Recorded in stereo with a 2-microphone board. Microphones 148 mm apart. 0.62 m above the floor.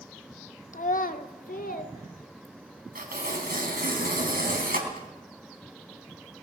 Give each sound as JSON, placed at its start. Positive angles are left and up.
{"t": 0.7, "sound": "a child speaking", "side_deg": 60, "distance_m": 1.1}
{"t": 3.0, "sound": "tearing paper", "side_deg": -85, "distance_m": 4.0}